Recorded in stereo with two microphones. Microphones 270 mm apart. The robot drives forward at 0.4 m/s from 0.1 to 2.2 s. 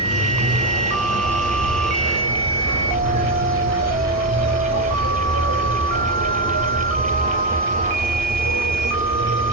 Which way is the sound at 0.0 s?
60° right (ahead or behind).